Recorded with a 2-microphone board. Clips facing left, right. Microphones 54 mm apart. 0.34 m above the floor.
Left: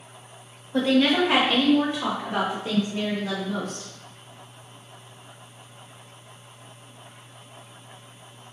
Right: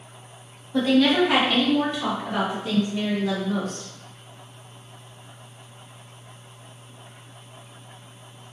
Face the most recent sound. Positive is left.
turn(degrees=15)  # may be behind; listen again after turning